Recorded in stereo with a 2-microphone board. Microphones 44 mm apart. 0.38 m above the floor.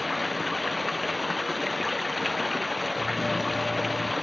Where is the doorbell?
30° right (ahead or behind).